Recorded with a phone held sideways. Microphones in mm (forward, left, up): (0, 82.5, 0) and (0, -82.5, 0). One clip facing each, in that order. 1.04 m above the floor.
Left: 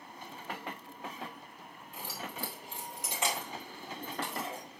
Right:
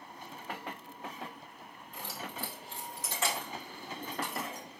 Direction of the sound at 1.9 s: 5° left (ahead or behind).